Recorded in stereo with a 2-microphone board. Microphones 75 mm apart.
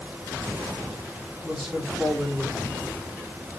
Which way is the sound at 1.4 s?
5° right (ahead or behind).